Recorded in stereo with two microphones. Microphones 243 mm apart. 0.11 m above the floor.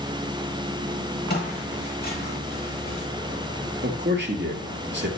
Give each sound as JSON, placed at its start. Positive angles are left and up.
{"t": 1.3, "sound": "footsteps", "side_deg": 45, "distance_m": 5.5}
{"t": 3.8, "sound": "a man speaking", "side_deg": -50, "distance_m": 2.5}